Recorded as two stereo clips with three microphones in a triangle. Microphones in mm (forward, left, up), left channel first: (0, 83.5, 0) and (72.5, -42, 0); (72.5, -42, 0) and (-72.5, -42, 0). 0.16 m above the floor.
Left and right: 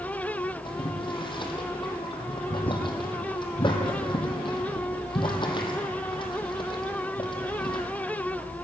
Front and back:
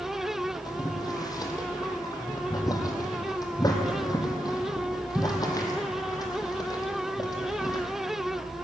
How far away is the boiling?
About 2 m.